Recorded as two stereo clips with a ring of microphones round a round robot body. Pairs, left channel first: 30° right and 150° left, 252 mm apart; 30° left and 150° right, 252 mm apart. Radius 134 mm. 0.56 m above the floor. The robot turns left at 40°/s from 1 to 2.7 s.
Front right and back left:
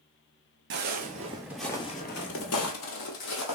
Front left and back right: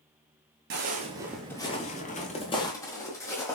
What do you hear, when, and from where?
0.7 s footsteps: straight behind, 0.7 m; by 3.6 s 50° right, 1.2 m